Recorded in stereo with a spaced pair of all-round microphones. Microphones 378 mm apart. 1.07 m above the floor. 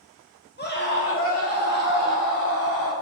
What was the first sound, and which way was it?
A scream, 25° left (ahead or behind).